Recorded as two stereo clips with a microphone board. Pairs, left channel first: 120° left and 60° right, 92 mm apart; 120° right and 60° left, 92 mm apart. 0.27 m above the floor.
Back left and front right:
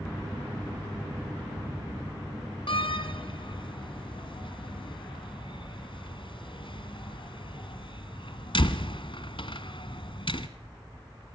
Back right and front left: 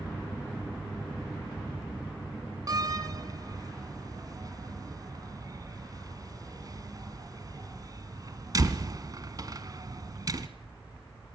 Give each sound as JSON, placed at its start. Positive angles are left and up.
{"t": 2.7, "sound": "a door slam", "azimuth_deg": 105, "distance_m": 1.5}